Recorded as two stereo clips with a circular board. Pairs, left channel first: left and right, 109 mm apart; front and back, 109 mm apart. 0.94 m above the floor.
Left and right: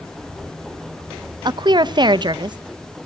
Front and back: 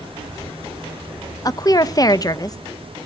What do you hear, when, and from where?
1.4 s a woman speaking: 50° right, 0.5 m